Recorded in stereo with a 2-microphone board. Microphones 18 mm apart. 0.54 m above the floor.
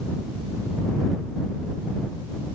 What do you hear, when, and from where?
Only background noise.